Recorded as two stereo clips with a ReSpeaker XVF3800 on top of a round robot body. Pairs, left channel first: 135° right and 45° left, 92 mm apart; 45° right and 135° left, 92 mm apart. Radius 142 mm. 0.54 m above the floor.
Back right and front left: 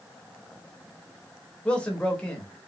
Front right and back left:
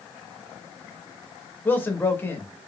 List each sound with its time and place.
1.6 s a man speaking: 75° right, 1.2 m